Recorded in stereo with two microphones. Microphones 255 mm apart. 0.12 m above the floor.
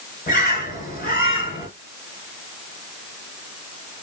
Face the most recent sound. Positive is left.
turn(degrees=35)  # may be behind; listen again after turning